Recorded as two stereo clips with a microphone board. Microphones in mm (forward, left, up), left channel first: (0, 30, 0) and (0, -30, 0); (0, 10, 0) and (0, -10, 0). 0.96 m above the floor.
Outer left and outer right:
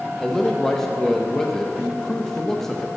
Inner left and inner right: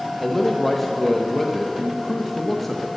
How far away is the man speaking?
About 0.6 m.